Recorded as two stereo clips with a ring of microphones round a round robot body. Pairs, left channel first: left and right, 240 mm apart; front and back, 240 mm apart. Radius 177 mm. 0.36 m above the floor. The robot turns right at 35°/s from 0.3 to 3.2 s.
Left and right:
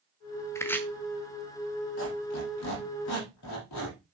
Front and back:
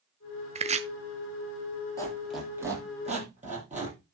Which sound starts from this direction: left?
A squeak, at 2.0 s.